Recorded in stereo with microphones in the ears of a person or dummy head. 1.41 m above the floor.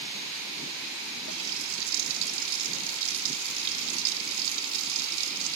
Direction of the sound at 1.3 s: 70° right (ahead or behind).